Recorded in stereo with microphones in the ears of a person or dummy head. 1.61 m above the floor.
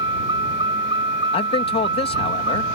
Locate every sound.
0.0 s a vehicle: 30° right (ahead or behind)
1.3 s a man speaking: 30° left (ahead or behind)